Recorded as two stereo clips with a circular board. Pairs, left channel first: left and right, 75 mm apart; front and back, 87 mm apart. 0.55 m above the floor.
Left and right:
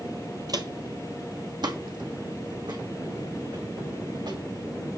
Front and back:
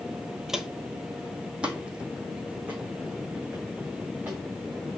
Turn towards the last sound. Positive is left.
turn(degrees=-105)